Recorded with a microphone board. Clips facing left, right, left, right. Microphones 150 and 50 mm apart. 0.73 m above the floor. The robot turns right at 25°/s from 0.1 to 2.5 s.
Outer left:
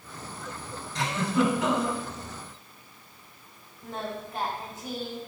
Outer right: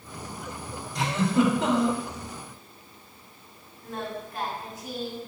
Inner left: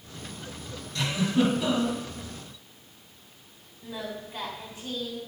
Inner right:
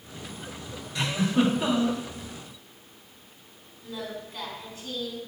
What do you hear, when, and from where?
0.9 s a giggle: 15° right (ahead or behind), 2.5 m; by 2.0 s 40° right (ahead or behind), 2.5 m
3.8 s singing: 25° left (ahead or behind), 1.8 m